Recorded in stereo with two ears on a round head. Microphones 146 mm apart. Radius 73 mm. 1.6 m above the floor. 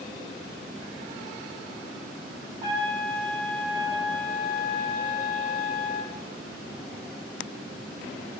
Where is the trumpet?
30° right (ahead or behind), 4.5 m.